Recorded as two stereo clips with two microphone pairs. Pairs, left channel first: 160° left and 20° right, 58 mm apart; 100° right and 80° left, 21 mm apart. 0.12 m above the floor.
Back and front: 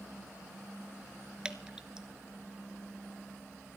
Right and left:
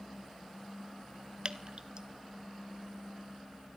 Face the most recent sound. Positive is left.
turn(degrees=55)